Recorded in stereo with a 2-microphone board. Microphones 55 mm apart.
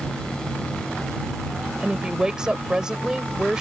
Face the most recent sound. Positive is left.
turn(degrees=-15)  # may be behind; listen again after turning